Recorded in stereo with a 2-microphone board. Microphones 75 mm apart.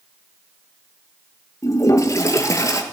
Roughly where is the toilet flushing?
Left.